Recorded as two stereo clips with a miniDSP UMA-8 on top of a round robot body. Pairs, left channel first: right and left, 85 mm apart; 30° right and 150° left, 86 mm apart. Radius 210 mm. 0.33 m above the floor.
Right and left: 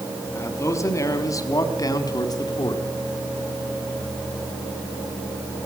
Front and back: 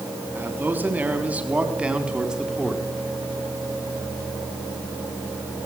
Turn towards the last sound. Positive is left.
turn(degrees=-125)